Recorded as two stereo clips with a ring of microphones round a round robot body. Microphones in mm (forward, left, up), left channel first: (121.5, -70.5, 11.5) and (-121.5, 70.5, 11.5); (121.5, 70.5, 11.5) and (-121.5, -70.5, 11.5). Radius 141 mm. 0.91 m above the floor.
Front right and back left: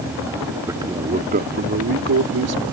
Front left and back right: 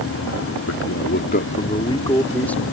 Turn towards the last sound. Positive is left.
turn(degrees=115)